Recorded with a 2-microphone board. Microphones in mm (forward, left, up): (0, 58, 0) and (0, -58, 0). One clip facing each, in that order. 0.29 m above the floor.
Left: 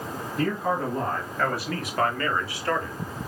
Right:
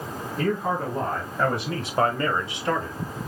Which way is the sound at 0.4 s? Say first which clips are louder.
Right 1 dB; 10° right (ahead or behind).